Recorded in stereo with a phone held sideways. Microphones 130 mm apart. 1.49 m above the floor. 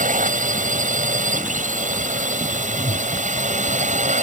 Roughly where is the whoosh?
Left.